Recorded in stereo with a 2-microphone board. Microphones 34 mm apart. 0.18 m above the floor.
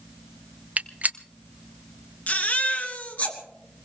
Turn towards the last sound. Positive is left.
turn(degrees=55)  # may be behind; listen again after turning